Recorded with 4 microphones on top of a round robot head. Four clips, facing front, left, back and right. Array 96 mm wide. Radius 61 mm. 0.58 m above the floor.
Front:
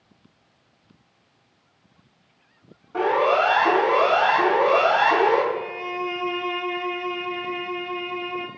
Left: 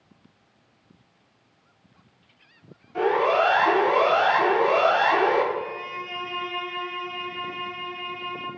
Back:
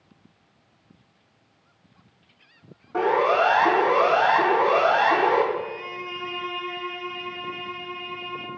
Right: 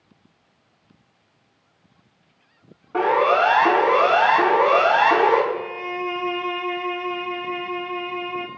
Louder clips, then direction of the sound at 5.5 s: Right 3 dB, front 2 dB; 55° right.